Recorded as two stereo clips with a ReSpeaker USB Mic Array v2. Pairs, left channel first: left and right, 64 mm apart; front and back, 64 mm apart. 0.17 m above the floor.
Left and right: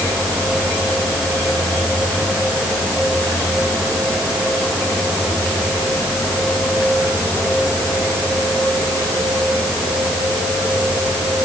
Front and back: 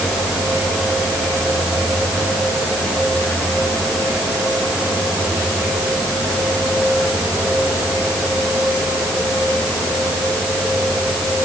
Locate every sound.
Only background noise.